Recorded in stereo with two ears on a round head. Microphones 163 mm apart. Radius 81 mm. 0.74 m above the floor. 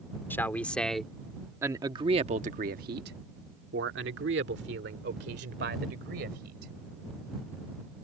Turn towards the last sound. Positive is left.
turn(degrees=-60)  # may be behind; listen again after turning